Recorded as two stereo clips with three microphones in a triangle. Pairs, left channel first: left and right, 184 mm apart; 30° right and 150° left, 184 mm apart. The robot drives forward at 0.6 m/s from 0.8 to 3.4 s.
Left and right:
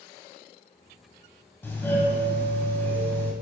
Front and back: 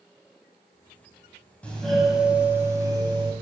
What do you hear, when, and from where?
1.6 s a doorbell: 35° left, 1.4 m; by 3.3 s 155° left, 1.5 m